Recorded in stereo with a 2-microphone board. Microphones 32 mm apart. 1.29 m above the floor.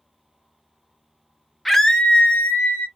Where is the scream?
5° left (ahead or behind), 0.6 m; by 2.9 s 85° left, 0.7 m.